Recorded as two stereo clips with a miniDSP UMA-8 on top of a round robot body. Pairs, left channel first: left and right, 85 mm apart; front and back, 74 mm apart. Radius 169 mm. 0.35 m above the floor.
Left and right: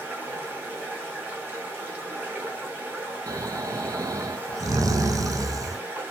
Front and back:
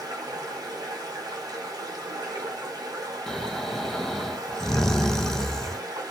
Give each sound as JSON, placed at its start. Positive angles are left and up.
{"t": 0.0, "sound": "running water", "azimuth_deg": -160, "distance_m": 1.1}
{"t": 3.3, "sound": "snoring", "azimuth_deg": -80, "distance_m": 0.6}